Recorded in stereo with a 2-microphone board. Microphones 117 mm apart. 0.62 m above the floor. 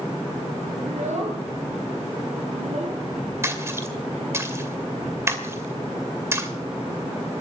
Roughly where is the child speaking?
Right.